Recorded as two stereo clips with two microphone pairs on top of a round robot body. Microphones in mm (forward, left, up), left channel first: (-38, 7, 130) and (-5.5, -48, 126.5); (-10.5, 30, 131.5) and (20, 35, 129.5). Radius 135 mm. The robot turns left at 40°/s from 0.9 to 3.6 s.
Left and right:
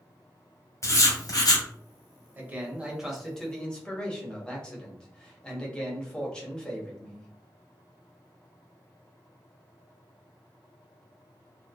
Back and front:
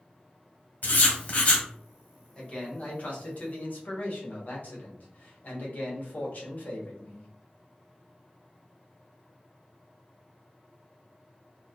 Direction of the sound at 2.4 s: 110° right.